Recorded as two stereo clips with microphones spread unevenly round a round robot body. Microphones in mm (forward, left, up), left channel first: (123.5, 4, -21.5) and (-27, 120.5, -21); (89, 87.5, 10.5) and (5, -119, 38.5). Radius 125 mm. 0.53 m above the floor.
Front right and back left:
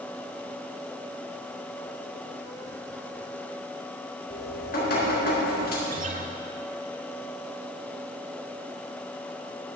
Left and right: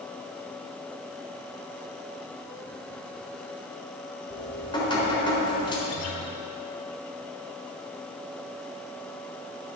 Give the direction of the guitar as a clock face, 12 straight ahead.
9 o'clock.